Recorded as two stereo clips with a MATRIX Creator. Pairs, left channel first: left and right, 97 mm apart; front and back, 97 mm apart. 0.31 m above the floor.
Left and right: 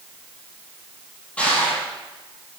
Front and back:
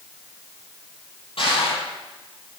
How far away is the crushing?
About 8 m.